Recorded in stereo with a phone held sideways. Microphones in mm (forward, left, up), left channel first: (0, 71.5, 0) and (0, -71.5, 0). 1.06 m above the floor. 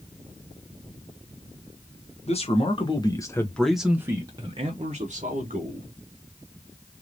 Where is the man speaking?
50° left (ahead or behind), 1.2 m; by 5.9 s 60° right (ahead or behind), 1.5 m.